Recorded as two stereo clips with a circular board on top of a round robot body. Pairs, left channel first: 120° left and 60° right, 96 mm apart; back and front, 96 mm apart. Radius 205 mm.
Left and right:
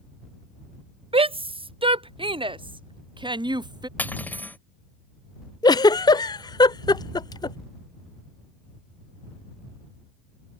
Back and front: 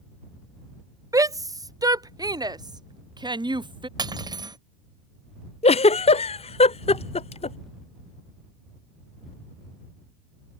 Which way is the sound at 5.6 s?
170° left.